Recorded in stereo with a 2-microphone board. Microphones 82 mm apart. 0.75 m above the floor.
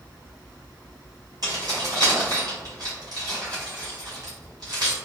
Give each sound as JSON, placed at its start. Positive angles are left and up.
{"t": 1.4, "sound": "keys jangling", "side_deg": -55, "distance_m": 1.8}